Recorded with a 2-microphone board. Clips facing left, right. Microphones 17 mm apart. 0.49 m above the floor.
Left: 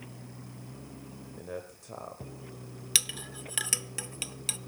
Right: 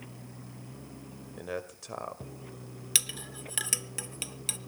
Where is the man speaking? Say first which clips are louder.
Right 4 dB; 50° right (ahead or behind), 2 m.